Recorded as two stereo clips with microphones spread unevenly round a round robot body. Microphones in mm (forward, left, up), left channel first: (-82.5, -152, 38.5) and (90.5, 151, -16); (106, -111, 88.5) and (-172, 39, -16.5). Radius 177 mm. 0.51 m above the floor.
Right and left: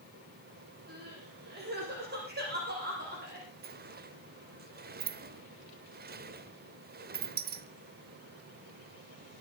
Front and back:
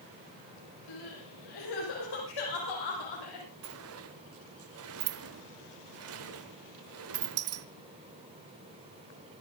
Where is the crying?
5° right, 7.5 m.